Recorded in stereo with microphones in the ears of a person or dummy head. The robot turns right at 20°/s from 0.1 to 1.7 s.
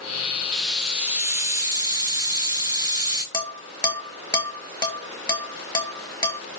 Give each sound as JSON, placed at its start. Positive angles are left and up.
{"t": 0.5, "sound": "a hiss", "side_deg": 0, "distance_m": 0.8}
{"t": 3.3, "sound": "dishes clattering", "side_deg": 20, "distance_m": 1.2}